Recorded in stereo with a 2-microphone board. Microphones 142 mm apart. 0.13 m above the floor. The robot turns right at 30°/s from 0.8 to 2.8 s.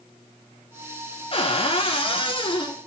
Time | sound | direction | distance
1.3 | a cupboard door | 80° left | 1.1 m